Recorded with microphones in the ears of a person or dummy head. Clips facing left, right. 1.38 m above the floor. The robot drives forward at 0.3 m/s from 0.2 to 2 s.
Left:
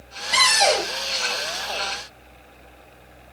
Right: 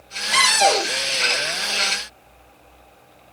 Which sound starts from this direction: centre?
A cupboard door, at 0.3 s.